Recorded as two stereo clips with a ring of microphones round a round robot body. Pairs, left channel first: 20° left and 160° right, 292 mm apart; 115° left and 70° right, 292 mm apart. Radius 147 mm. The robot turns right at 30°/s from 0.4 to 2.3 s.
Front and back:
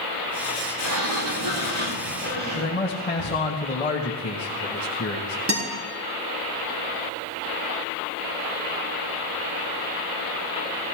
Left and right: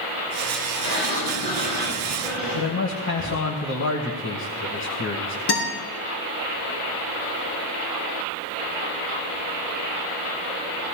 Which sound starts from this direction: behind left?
A guitar, at 5.5 s.